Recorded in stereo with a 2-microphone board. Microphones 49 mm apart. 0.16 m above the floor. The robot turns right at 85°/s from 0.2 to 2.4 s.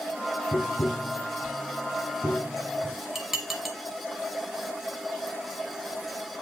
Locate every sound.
0.5 s tapping: 55° left (ahead or behind), 2 m; by 3.0 s 55° right (ahead or behind), 2 m
3.1 s dishes clattering: 5° right (ahead or behind), 1.0 m